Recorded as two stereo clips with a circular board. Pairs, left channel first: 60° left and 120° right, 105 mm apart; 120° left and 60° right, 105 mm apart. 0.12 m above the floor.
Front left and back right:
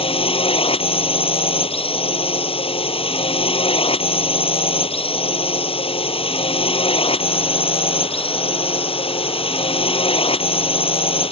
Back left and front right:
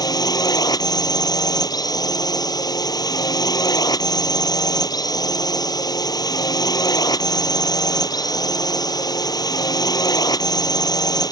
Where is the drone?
70° left.